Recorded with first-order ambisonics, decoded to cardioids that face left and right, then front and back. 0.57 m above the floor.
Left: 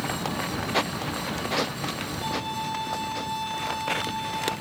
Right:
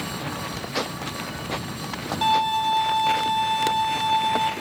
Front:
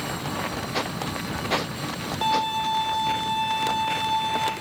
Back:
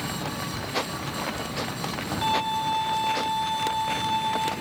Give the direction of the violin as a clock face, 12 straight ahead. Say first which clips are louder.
Right 12 dB, front 2 dB; 2 o'clock.